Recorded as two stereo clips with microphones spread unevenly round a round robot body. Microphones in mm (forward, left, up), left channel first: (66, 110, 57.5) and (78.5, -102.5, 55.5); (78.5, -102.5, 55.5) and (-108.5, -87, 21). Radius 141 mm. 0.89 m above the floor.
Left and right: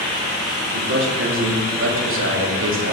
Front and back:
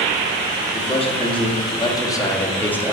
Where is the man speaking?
65° right, 2.5 m; by 2.9 s 95° right, 1.7 m.